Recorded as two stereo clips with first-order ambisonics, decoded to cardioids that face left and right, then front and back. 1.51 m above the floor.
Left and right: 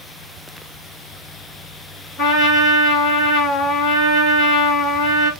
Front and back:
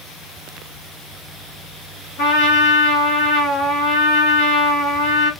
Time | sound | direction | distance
2.2 | a trumpet | 40° left | 2 m